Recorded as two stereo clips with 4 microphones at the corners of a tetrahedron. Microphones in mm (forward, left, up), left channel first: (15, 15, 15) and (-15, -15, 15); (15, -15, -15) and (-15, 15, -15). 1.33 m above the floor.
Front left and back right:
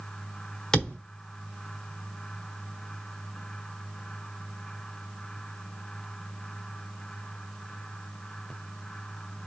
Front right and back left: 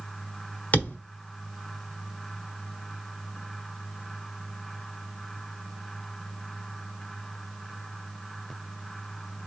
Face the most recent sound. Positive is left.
turn(degrees=-30)